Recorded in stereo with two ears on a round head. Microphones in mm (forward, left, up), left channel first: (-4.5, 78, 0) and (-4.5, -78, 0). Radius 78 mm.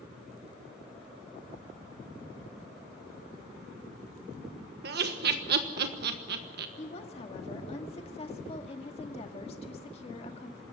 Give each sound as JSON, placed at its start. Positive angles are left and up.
{"t": 4.8, "sound": "laughter", "side_deg": -60, "distance_m": 1.4}
{"t": 6.8, "sound": "a woman speaking", "side_deg": 35, "distance_m": 1.9}